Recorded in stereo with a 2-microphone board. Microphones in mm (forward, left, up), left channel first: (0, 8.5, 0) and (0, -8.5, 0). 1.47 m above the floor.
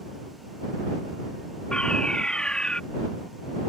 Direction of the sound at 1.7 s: 80° left.